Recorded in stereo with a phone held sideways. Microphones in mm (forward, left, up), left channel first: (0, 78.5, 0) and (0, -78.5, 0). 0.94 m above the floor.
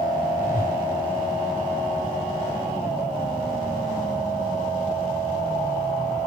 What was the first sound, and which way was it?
A whoosh, 60° left (ahead or behind).